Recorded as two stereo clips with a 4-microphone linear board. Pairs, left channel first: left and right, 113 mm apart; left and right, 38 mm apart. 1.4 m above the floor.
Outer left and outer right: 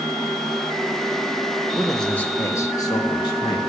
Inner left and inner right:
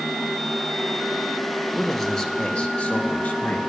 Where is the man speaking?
5° right (ahead or behind), 1.2 m; by 3.6 s 45° left (ahead or behind), 2 m.